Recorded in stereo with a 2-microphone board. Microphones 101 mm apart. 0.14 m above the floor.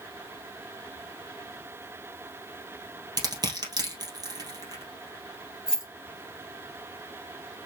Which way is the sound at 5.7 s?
5° right (ahead or behind).